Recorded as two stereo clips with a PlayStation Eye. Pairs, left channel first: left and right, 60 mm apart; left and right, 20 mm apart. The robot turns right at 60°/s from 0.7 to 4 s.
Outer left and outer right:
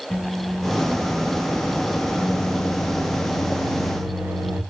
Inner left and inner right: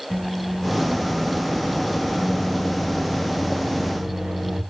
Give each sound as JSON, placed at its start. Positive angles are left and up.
{"t": 0.1, "sound": "a microwave", "azimuth_deg": 10, "distance_m": 1.3}